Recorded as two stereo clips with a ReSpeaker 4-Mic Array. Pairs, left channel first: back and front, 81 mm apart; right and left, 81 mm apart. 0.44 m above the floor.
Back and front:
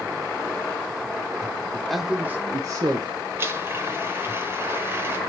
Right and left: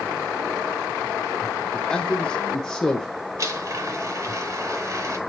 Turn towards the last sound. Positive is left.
turn(degrees=55)